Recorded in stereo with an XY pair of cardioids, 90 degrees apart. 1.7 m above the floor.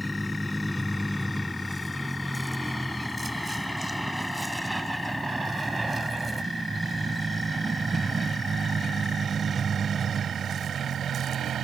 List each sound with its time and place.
0.0 s a vehicle: 5° left; by 11.6 s 65° right